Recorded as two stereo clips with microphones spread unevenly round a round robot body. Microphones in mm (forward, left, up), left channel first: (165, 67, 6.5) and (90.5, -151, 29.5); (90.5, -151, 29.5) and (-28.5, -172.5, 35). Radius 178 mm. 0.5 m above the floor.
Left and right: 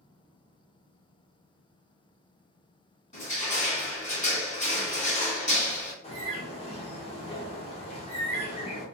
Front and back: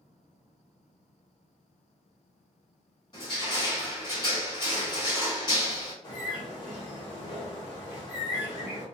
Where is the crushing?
40° left, 1.6 m.